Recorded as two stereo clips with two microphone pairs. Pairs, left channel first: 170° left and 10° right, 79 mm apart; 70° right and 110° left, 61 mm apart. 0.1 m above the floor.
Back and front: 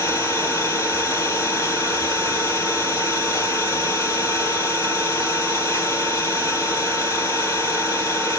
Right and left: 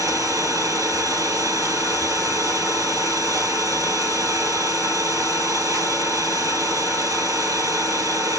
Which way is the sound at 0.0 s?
120° left.